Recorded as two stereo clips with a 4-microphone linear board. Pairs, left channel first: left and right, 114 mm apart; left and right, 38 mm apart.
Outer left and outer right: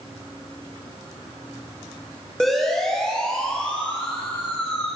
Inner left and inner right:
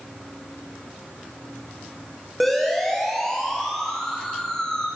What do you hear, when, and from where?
2.4 s a siren: centre (ahead or behind), 9 m; by 4.9 s 20° left (ahead or behind), 8.5 m